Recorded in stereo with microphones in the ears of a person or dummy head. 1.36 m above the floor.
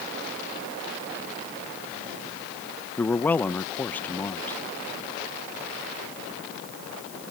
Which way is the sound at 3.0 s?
10° left (ahead or behind).